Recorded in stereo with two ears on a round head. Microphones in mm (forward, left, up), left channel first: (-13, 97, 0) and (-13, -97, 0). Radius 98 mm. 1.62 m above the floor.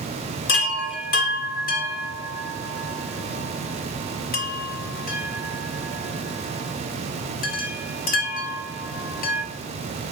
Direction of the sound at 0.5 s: 40° left (ahead or behind).